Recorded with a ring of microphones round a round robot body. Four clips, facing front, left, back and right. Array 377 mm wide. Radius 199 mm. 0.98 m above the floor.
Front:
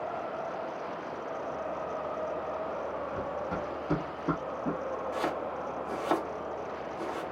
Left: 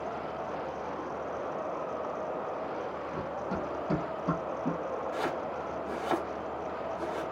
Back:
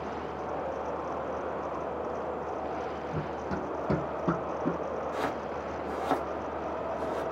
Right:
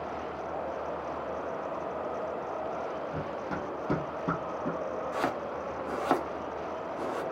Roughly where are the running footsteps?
Behind right.